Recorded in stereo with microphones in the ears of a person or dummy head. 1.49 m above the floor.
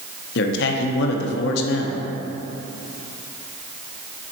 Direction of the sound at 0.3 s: 60° left (ahead or behind).